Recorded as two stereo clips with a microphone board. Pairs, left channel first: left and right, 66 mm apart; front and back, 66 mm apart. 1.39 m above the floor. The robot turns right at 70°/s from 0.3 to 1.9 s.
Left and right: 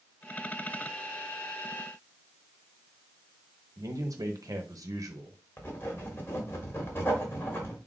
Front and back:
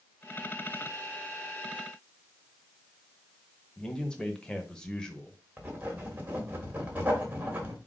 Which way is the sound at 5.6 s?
125° left.